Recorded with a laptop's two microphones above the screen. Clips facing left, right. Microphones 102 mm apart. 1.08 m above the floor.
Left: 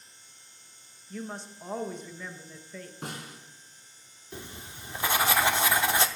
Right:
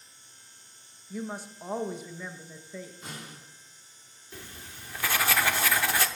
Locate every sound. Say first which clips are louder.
1.1 s a woman speaking: right 2 dB; 10° right (ahead or behind), 1.3 m
3.0 s a snare drum: left 3 dB; 65° left (ahead or behind), 4 m
4.3 s writing: left 3 dB; 20° left (ahead or behind), 0.7 m